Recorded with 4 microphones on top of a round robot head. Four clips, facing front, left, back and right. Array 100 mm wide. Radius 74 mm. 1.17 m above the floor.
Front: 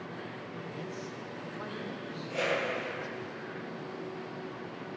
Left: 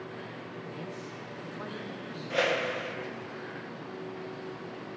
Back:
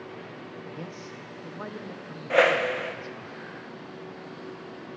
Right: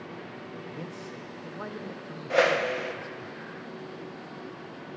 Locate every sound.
0.8 s a man speaking: 140° right, 0.7 m
2.3 s a whoosh: 155° right, 0.5 m